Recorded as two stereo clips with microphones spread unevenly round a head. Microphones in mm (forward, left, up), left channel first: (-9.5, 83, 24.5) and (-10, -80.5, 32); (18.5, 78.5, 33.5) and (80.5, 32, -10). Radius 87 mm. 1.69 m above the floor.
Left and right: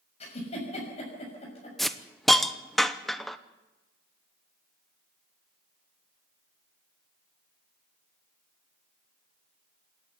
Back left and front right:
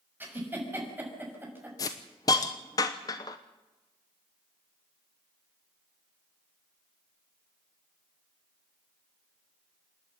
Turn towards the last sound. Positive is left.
turn(degrees=180)